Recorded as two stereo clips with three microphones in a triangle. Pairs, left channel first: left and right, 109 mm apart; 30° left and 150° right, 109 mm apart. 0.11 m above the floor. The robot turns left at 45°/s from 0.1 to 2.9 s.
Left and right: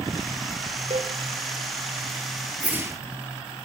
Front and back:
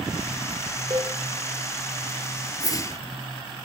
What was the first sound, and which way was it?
A cowbell, 100° right.